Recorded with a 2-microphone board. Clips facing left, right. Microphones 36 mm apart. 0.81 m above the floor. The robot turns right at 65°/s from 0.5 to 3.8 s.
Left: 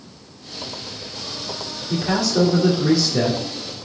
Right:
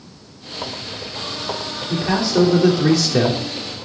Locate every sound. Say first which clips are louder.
1.9 s a man speaking: right 2 dB; 170° right, 2.5 m; by 3.4 s 75° right, 2.5 m